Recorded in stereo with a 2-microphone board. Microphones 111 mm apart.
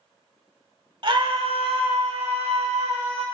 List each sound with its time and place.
1.0 s a scream: 45° right (ahead or behind), 1.5 m; by 3.2 s 65° right (ahead or behind), 2.5 m